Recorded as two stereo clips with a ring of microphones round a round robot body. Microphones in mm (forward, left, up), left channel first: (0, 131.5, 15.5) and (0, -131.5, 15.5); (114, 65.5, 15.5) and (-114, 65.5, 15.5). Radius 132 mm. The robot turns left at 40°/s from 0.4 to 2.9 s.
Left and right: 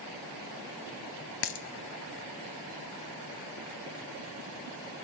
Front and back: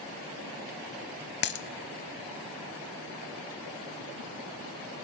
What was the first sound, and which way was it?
A dropped coin, 45° left.